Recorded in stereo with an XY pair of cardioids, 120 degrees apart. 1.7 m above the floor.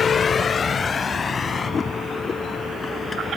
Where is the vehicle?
40° left; by 3.4 s 25° left.